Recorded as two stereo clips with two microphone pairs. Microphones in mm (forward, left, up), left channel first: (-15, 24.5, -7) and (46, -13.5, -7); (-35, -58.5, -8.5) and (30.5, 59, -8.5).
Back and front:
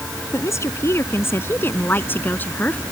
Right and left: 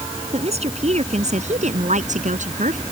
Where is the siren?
No siren in this recording.